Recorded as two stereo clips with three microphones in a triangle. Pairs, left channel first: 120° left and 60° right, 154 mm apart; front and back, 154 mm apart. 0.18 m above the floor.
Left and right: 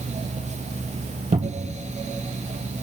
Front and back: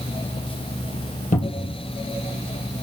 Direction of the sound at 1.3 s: 25° right.